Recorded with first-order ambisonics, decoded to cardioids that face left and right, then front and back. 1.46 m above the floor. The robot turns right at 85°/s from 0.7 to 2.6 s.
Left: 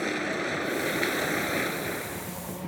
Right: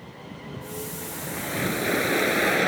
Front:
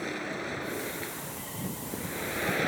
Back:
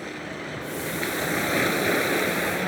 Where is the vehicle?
90° left; by 2.7 s 90° right.